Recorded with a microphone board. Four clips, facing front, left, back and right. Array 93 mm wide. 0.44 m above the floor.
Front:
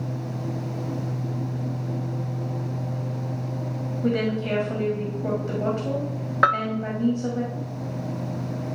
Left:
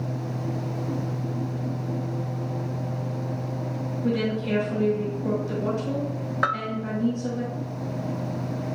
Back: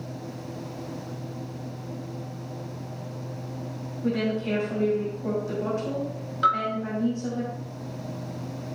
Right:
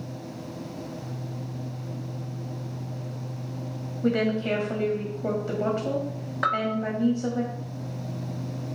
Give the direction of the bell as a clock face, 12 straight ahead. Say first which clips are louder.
Right 1 dB, front 2 dB; 12 o'clock.